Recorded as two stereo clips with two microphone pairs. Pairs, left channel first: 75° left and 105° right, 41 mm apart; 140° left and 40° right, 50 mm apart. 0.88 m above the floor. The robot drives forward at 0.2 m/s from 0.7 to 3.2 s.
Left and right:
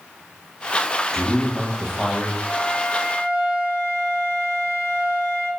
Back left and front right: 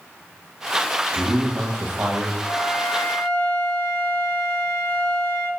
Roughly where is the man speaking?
Ahead.